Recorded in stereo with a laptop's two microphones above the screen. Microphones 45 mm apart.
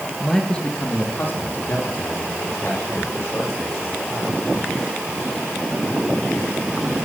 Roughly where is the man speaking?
Centre.